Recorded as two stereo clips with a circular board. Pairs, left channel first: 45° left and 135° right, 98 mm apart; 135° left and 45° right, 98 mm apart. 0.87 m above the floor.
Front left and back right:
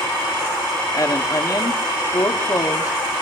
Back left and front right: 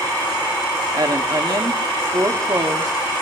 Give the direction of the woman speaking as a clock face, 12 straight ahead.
12 o'clock.